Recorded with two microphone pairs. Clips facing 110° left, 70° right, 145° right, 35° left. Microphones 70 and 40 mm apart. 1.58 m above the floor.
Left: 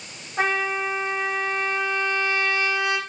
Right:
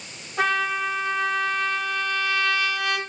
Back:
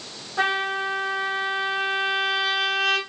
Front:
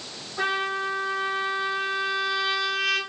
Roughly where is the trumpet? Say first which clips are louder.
Even, back 3 dB; behind.